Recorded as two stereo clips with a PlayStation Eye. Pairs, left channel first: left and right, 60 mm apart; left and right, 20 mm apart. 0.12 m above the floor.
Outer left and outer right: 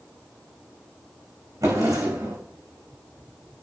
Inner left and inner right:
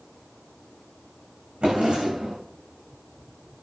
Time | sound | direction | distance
1.6 | a drawer | 80° right | 5 m